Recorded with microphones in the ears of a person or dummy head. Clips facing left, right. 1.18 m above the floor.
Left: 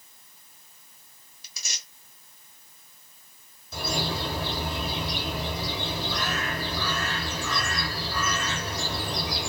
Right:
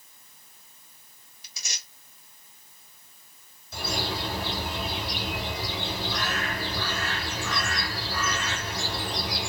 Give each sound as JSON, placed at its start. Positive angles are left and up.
{"t": 1.4, "sound": "tearing paper", "side_deg": 80, "distance_m": 1.4}
{"t": 3.7, "sound": "a bird", "side_deg": 70, "distance_m": 1.4}